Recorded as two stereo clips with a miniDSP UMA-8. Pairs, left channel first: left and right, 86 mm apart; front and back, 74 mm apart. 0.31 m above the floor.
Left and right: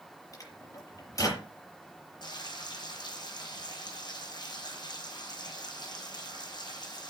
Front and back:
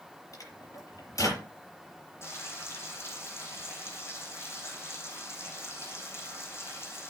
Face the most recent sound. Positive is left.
turn(degrees=55)